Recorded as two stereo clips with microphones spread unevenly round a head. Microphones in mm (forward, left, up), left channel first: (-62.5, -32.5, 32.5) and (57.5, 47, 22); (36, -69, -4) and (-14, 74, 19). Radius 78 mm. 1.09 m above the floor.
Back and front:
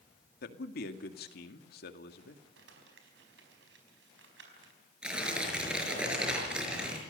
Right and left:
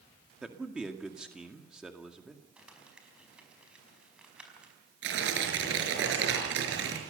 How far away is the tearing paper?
About 5.5 m.